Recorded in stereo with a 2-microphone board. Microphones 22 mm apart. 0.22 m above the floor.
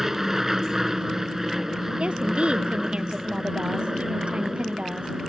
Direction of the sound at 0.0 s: 20° right (ahead or behind).